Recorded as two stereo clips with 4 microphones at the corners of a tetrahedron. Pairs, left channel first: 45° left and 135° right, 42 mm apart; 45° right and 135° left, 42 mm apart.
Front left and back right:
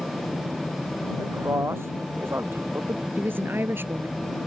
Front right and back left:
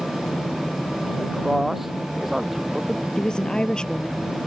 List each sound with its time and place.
1.2 s a man speaking: 140° right
3.2 s a woman speaking: 115° right